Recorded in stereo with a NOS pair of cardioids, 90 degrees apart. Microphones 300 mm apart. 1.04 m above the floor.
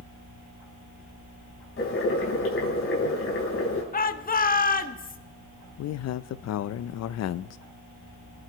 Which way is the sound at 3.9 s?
30° left.